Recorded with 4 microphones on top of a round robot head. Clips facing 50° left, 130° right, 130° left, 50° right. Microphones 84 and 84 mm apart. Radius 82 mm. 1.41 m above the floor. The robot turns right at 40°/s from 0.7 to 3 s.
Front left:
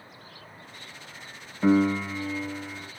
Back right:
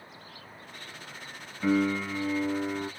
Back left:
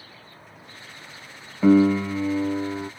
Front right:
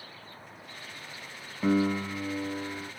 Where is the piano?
120° left, 0.7 m; by 2.9 s 170° left, 0.7 m.